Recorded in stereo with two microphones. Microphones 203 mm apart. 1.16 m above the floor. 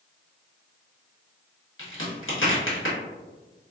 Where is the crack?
85° left, 1.4 m.